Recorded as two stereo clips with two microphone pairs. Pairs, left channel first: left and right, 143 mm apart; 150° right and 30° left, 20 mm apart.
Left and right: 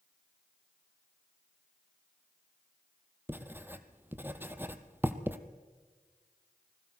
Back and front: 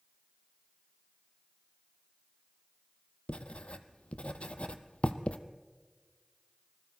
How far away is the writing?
About 1.2 m.